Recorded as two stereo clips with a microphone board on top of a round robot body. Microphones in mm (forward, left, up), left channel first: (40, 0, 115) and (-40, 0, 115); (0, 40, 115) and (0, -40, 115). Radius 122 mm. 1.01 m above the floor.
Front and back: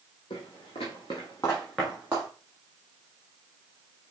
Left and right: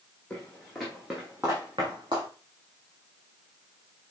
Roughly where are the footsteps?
Ahead.